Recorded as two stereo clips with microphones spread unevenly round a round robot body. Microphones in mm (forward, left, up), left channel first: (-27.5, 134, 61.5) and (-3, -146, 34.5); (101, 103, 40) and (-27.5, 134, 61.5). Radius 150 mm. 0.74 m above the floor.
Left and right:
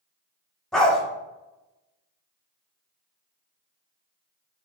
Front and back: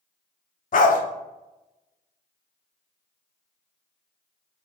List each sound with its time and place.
0.7 s a dog barking: 10° left, 0.6 m